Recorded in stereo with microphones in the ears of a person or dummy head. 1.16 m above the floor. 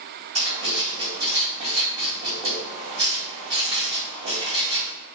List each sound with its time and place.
0.3 s writing: 35° right (ahead or behind), 1.8 m